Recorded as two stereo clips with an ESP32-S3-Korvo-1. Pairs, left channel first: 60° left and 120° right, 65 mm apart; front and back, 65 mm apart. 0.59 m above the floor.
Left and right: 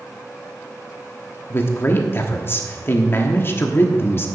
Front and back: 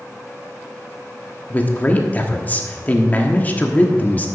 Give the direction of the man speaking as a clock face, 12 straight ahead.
10 o'clock.